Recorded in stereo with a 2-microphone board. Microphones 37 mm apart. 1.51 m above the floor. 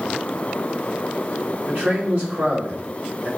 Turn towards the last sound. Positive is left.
turn(degrees=-55)  # may be behind; listen again after turning